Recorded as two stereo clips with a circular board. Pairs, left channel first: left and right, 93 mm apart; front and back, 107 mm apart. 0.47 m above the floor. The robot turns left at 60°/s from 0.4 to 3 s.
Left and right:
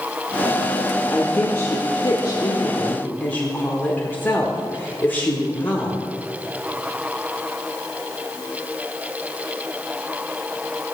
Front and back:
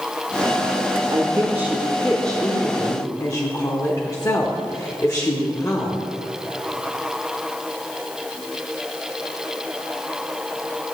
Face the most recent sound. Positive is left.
turn(degrees=35)